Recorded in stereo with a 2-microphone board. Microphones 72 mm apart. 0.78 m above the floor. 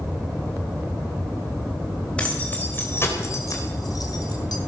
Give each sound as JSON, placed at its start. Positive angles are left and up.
{"t": 2.2, "sound": "keys jangling", "side_deg": 15, "distance_m": 3.0}